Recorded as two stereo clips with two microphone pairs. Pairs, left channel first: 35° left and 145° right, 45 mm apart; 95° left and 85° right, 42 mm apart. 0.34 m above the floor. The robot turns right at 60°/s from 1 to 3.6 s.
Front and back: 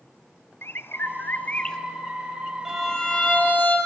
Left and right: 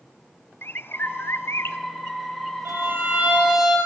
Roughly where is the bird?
Ahead left.